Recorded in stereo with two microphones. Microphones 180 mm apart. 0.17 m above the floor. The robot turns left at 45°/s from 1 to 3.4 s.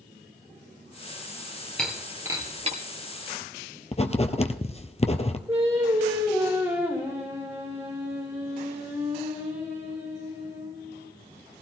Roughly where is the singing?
Centre.